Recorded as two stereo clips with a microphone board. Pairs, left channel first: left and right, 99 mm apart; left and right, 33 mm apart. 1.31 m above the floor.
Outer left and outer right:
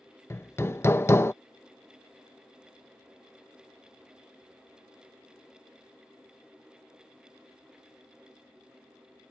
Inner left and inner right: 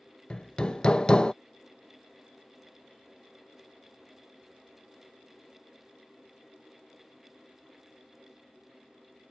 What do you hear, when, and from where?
0.3 s hammering: 25° left (ahead or behind)